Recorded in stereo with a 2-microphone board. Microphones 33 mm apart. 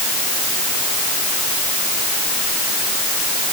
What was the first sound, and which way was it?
Only background noise.